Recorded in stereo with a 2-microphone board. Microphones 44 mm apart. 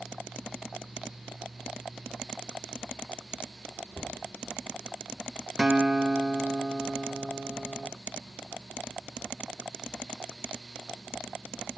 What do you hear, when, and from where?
3.9 s a cupboard door: 45° left (ahead or behind), 7.5 m
5.6 s a guitar: 15° right (ahead or behind), 0.5 m